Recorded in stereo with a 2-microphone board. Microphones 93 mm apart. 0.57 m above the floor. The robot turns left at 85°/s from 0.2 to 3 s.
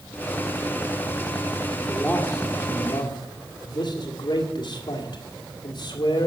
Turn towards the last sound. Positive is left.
turn(degrees=85)